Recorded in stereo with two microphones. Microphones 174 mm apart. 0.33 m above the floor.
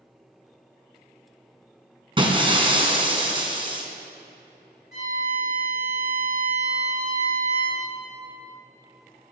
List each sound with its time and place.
2.2 s breaking glass: 30° right (ahead or behind), 1.7 m
4.9 s a violin: 65° left (ahead or behind), 4 m